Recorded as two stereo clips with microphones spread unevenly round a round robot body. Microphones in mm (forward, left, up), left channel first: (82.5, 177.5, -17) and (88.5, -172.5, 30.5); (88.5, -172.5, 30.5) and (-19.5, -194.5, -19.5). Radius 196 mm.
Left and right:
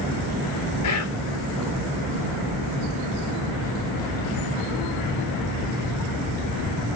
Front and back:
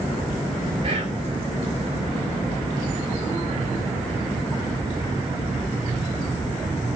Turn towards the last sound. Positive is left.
turn(degrees=140)